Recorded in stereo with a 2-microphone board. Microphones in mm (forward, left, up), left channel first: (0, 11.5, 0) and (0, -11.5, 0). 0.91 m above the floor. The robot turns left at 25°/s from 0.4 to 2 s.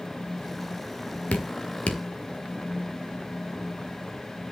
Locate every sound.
1.3 s dripping: 85° left, 1.6 m; by 2.0 s 65° left (ahead or behind), 1.6 m